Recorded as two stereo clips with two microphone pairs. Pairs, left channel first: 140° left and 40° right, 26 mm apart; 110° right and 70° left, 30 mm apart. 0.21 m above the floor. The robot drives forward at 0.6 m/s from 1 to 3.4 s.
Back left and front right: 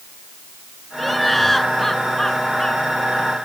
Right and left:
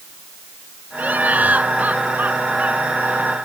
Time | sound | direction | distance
1.0 | laughter | 55° left | ?